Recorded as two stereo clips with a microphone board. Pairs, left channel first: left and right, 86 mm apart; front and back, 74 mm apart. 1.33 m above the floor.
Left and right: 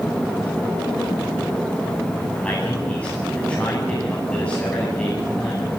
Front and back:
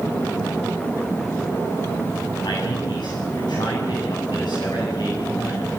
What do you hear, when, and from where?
2.4 s a man speaking: 15° left, 8.5 m